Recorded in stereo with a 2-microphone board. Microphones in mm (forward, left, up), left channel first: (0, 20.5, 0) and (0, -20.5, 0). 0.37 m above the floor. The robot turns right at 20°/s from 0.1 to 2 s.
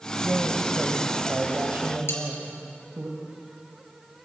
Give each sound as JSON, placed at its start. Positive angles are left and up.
{"t": 0.2, "sound": "a woman speaking", "azimuth_deg": -120, "distance_m": 2.5}
{"t": 2.1, "sound": "cutlery clinking", "side_deg": 75, "distance_m": 4.5}